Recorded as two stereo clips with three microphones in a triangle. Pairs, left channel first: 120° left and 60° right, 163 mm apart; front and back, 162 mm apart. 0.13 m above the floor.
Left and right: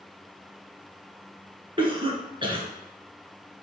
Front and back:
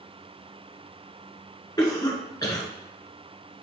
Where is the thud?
No thud in this recording.